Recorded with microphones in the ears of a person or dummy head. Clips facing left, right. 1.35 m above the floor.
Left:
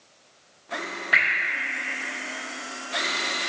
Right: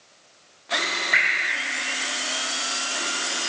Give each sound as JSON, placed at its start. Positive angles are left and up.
{"t": 1.1, "sound": "dripping", "side_deg": 5, "distance_m": 3.0}